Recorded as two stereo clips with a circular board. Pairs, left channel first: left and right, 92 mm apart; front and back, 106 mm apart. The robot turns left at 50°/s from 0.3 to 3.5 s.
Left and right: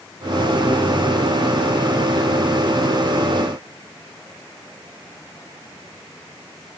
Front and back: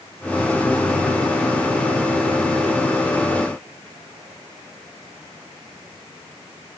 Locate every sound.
Only background noise.